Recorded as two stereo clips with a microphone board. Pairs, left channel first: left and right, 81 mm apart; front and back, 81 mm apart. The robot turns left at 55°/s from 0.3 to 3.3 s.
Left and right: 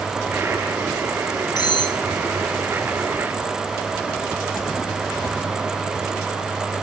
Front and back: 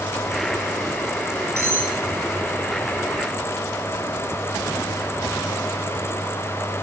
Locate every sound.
1.6 s cutlery clinking: 125° left, 9.5 m; by 2.0 s 105° left, 9.5 m